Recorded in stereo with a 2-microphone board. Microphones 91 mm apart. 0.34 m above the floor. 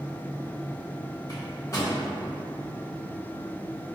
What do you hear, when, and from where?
1.3 s a microwave: 35° left (ahead or behind), 1.3 m